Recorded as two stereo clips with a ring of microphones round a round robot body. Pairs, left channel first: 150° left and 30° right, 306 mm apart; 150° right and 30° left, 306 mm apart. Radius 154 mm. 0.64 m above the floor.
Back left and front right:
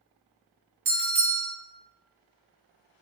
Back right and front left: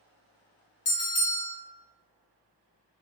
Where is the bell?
85° right, 1.3 m.